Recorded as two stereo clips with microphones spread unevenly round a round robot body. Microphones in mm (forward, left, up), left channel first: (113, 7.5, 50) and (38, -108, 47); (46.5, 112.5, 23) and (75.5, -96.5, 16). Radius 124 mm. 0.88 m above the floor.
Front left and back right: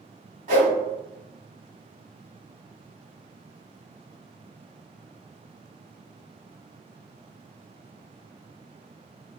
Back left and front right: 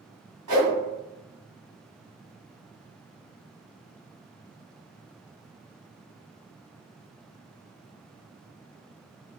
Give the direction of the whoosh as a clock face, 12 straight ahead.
4 o'clock.